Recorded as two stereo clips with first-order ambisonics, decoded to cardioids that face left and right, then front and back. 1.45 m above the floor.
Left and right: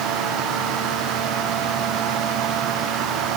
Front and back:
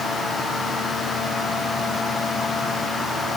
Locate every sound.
Only background noise.